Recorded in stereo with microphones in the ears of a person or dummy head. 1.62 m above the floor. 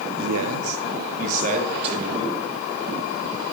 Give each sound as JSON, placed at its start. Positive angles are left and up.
{"t": 0.2, "sound": "a man speaking", "side_deg": -80, "distance_m": 0.8}